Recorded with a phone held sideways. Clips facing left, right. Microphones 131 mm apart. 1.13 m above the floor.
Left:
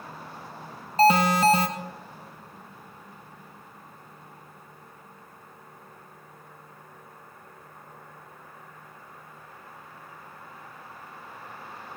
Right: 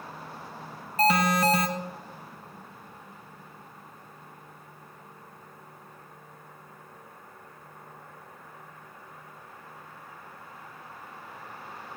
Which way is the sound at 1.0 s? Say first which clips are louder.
Left 4 dB; 30° left (ahead or behind).